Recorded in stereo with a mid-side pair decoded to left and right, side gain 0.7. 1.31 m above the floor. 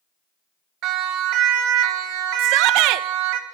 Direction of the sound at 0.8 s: 60° right.